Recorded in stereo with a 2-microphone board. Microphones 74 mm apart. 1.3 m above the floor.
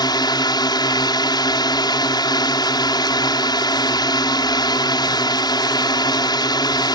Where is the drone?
65° left (ahead or behind).